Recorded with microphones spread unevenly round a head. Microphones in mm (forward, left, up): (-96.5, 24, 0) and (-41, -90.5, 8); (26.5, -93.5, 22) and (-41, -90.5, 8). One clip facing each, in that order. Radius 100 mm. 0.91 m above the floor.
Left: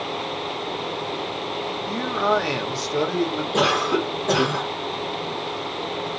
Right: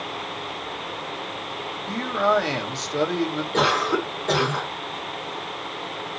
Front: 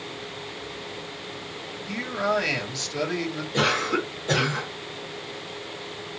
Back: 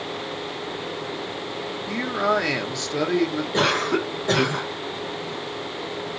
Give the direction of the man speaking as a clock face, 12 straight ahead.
5 o'clock.